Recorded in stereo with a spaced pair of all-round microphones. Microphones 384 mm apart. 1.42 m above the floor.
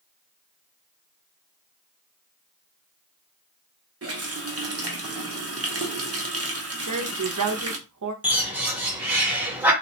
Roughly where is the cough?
I don't hear a cough.